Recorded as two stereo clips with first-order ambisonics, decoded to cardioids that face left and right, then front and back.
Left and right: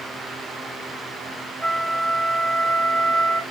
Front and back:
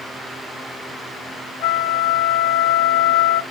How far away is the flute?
About 3 m.